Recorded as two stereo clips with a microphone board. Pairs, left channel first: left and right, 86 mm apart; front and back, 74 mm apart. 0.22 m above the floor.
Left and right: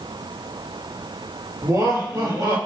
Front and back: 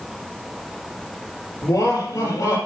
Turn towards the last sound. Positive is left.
turn(degrees=-45)